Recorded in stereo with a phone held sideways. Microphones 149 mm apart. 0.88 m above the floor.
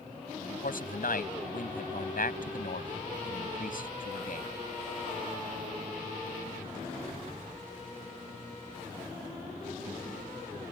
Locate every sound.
0.4 s a man speaking: 70° left (ahead or behind)